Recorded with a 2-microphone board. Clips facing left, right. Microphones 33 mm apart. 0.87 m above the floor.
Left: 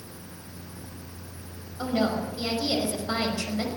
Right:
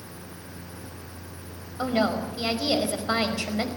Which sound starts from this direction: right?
A woman speaking, at 1.8 s.